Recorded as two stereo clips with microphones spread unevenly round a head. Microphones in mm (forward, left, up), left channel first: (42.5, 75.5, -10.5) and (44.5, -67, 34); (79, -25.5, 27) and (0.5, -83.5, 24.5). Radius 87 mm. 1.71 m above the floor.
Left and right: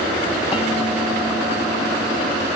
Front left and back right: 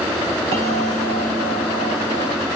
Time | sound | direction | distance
0.5 | a bell | 165° right | 2.5 m